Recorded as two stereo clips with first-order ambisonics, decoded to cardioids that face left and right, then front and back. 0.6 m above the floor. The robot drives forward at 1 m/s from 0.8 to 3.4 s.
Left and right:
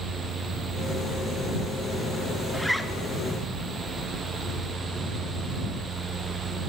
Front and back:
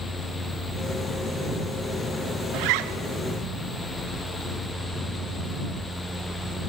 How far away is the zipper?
About 1.1 m.